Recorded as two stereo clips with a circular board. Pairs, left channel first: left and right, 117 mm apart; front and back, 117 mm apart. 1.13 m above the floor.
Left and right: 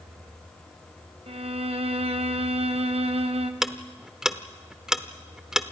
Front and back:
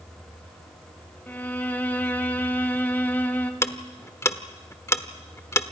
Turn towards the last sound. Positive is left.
turn(degrees=-10)